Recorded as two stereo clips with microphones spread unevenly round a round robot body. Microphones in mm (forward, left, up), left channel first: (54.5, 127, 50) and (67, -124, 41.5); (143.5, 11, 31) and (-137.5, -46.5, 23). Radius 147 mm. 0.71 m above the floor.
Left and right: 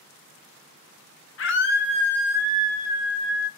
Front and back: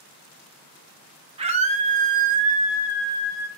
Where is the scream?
125° left, 0.8 m; by 3.5 s 90° right, 1.0 m.